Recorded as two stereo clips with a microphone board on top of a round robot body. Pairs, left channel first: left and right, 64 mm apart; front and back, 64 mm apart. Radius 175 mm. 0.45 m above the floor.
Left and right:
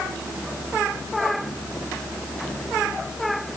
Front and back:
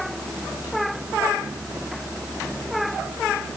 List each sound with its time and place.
Only background noise.